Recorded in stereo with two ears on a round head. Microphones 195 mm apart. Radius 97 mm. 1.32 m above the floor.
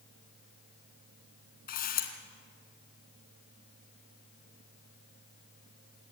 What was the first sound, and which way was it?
A camera shutter, 45° left (ahead or behind).